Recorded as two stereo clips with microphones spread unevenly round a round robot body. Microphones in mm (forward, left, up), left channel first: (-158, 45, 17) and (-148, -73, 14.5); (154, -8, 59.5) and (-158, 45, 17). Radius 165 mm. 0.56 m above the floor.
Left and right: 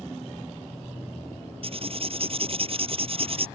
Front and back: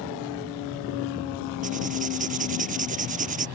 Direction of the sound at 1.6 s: 120° right.